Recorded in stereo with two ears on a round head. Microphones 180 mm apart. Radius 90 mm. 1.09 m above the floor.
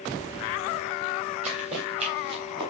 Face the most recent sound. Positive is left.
turn(degrees=-20)  # may be behind; listen again after turning